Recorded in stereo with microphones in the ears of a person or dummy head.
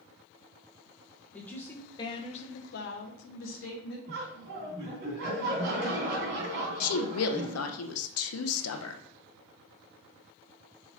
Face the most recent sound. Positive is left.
turn(degrees=80)